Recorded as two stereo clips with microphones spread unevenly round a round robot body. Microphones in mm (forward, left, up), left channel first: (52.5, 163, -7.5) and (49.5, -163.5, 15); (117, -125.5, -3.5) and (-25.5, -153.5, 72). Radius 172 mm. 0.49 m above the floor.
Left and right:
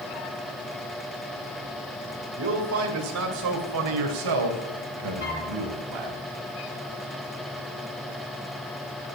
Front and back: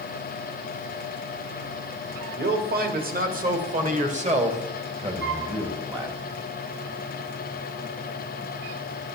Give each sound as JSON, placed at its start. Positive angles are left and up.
{"t": 2.4, "sound": "a man speaking", "azimuth_deg": -145, "distance_m": 2.5}
{"t": 5.2, "sound": "a flute", "azimuth_deg": 145, "distance_m": 2.0}